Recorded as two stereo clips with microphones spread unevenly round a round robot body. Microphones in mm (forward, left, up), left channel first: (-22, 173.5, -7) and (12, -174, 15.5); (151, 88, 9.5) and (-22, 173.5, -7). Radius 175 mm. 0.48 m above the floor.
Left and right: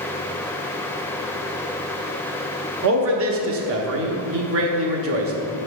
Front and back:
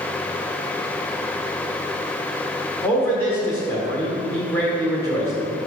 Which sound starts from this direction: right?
A man speaking, at 2.8 s.